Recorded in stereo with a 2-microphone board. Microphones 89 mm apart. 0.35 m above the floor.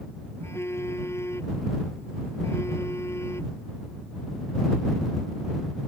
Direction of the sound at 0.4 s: 30° left (ahead or behind).